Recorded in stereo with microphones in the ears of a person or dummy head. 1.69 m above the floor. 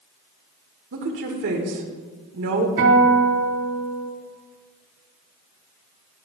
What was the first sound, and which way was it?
A woman speaking, 65° right (ahead or behind).